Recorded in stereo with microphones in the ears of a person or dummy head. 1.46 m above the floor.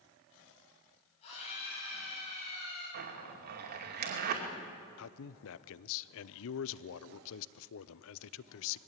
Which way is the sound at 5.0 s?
75° left (ahead or behind).